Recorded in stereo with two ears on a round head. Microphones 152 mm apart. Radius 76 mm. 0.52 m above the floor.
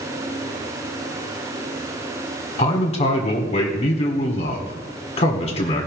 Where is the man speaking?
35° left (ahead or behind), 1.5 m.